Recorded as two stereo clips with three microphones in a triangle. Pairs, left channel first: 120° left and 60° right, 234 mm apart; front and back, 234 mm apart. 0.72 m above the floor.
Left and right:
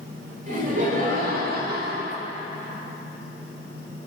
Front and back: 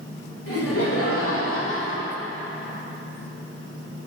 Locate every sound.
0.5 s laughter: 5° right, 2 m; by 2.2 s 25° right, 0.9 m